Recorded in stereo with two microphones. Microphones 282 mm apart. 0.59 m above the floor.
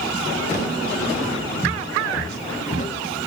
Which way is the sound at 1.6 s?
5° right (ahead or behind).